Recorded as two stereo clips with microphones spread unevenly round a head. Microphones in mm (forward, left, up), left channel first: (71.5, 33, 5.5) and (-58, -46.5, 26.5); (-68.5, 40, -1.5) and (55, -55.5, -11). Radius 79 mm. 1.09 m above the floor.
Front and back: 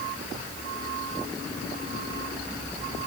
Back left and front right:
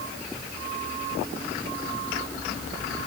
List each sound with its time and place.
Only background noise.